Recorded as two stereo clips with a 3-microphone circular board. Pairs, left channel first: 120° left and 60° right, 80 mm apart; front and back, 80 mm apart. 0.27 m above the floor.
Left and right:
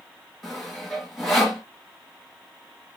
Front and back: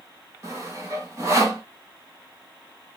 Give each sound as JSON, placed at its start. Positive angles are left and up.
{"t": 0.4, "sound": "sawing", "azimuth_deg": -150, "distance_m": 1.8}